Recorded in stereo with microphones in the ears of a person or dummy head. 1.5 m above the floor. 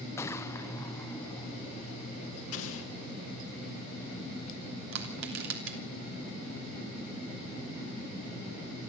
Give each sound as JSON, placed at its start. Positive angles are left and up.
{"t": 0.2, "sound": "a gunshot", "side_deg": 20, "distance_m": 0.7}
{"t": 2.5, "sound": "an explosion", "side_deg": 75, "distance_m": 1.7}
{"t": 4.9, "sound": "crushing", "side_deg": -75, "distance_m": 3.0}